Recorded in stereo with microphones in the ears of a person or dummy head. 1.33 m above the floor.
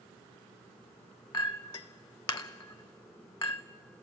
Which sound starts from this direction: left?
A clink, at 1.3 s.